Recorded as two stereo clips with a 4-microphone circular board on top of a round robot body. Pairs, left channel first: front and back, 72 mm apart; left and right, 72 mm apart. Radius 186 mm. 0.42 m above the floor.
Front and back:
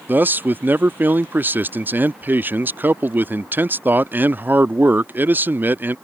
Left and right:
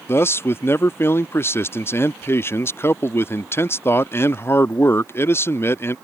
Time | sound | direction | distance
0.1 | a man speaking | 130° left | ?